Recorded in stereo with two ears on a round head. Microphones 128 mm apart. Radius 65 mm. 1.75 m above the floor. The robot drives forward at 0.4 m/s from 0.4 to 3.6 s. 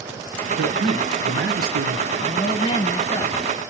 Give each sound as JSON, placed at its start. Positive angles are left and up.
{"t": 0.6, "sound": "a man speaking", "side_deg": -80, "distance_m": 1.6}
{"t": 2.2, "sound": "a woman speaking", "side_deg": 35, "distance_m": 1.1}